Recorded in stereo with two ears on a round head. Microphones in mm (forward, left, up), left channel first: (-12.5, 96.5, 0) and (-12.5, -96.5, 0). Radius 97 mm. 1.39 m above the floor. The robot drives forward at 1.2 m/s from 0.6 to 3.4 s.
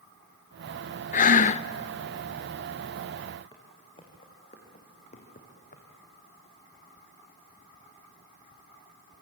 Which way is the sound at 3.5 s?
20° left (ahead or behind).